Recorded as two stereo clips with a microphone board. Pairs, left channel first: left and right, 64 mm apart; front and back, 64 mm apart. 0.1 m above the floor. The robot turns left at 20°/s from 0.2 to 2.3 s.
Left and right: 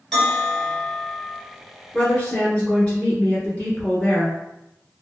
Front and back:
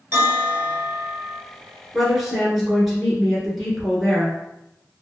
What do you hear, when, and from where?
0.1 s a bell: 170° left, 1.7 m; by 1.4 s 150° left, 1.7 m
1.9 s a woman speaking: 95° left, 1.2 m; by 4.4 s 90° left, 1.2 m